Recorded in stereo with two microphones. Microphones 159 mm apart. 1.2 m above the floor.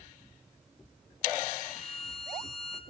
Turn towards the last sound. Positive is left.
turn(degrees=0)  # may be behind; listen again after turning